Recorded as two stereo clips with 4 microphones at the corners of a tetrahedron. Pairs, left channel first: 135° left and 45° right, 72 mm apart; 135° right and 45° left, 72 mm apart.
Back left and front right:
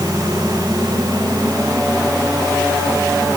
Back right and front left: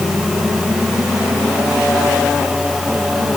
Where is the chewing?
No chewing in this recording.